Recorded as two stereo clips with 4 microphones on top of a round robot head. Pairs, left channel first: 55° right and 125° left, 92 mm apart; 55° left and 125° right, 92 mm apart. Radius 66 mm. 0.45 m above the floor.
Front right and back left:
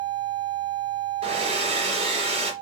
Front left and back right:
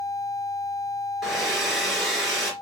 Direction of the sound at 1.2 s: 145° left.